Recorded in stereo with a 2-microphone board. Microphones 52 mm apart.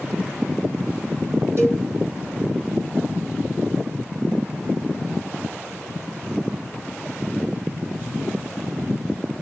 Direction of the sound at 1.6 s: 55° right (ahead or behind).